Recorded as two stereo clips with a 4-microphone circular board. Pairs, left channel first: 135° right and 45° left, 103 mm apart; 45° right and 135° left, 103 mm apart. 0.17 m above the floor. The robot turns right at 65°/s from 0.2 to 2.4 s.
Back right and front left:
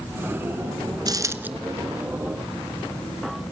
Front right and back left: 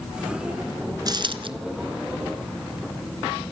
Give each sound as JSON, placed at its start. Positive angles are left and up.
{"t": 1.1, "sound": "a dropped coin", "azimuth_deg": 90, "distance_m": 0.9}